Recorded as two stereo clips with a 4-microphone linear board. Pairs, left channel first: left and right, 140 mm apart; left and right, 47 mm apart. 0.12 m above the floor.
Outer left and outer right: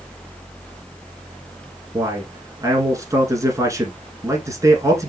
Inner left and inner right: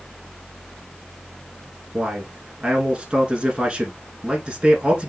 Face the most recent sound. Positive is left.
turn(degrees=-25)  # may be behind; listen again after turning